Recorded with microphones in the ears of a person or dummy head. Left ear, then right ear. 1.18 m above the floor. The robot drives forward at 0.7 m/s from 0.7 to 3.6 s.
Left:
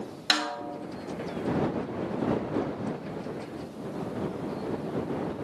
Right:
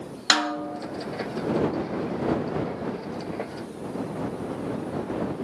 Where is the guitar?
No guitar in this recording.